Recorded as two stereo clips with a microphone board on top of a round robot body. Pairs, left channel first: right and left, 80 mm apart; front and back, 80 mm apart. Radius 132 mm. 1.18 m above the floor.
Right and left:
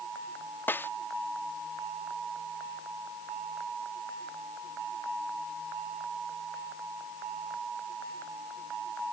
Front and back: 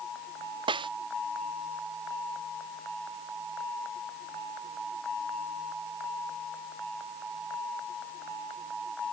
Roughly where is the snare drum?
Behind right.